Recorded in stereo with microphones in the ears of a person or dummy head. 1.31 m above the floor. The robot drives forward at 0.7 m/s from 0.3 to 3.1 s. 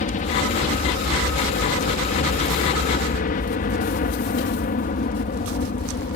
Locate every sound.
0.0 s a helicopter: 45° left (ahead or behind); by 6.2 s 50° left (ahead or behind)